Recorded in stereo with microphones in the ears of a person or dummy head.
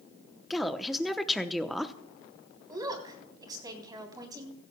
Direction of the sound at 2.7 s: 20° right (ahead or behind).